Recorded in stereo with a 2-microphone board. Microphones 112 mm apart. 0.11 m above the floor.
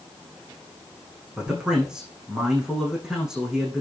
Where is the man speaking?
5° right (ahead or behind), 7.5 m.